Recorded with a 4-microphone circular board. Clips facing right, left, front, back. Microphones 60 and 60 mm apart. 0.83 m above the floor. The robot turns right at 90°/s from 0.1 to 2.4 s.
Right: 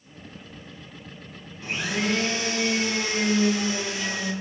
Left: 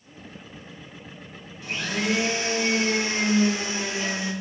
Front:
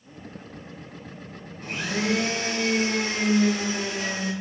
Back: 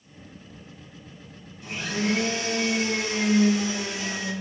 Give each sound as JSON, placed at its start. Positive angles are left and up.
{"t": 1.6, "sound": "a blender", "azimuth_deg": -35, "distance_m": 0.7}